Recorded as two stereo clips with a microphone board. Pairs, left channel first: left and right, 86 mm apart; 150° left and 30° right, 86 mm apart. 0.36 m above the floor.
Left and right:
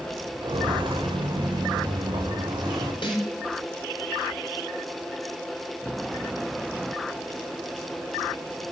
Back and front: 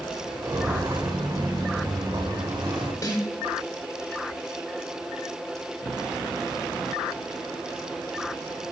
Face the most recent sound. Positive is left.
turn(degrees=100)